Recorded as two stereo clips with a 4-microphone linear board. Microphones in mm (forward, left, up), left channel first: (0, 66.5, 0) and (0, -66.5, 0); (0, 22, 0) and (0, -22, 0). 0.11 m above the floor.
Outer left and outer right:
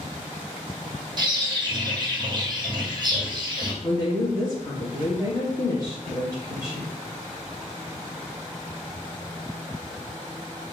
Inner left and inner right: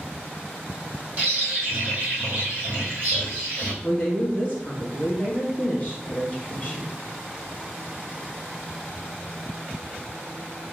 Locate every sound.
1.2 s a bird: 35° right (ahead or behind), 1.7 m
3.8 s a woman speaking: 25° left (ahead or behind), 1.2 m